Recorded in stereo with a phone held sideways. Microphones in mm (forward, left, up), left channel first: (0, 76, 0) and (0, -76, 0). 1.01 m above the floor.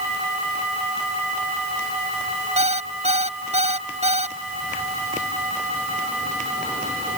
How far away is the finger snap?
I don't hear a finger snap.